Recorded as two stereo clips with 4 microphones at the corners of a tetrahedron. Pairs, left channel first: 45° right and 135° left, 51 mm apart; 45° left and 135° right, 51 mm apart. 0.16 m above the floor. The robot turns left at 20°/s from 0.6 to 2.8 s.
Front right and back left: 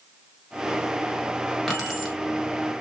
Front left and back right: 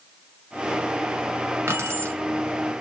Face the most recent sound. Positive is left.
turn(degrees=-150)